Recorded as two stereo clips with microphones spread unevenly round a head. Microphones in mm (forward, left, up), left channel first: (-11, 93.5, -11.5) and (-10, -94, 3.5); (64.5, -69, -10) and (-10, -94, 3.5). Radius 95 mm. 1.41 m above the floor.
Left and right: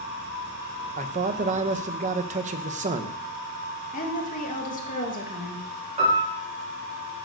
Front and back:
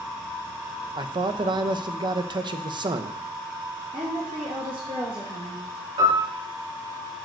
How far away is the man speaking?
About 1.1 m.